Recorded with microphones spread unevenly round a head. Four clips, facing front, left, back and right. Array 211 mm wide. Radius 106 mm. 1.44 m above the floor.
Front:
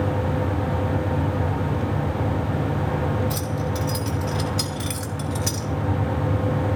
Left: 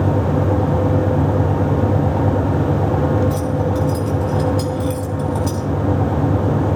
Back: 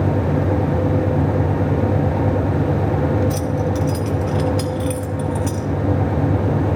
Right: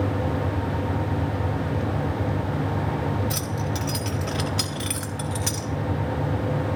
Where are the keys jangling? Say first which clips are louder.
Left 10 dB, back 6 dB; 105° right, 2.0 m; by 5.7 s 65° right, 2.5 m.